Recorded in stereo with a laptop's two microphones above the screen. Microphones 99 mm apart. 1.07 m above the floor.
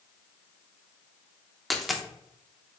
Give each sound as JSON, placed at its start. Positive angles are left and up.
{"t": 1.7, "sound": "a dropped coin", "side_deg": 0, "distance_m": 0.6}